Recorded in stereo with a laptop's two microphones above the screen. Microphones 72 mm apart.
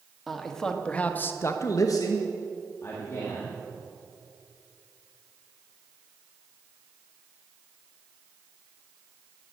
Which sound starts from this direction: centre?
A man speaking, at 0.3 s.